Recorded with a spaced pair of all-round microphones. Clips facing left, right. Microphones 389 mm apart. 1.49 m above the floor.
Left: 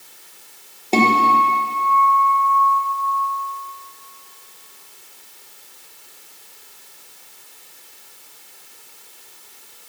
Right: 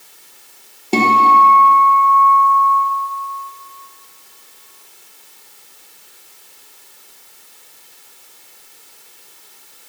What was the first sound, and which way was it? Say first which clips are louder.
A guitar: right 1 dB; 25° right (ahead or behind).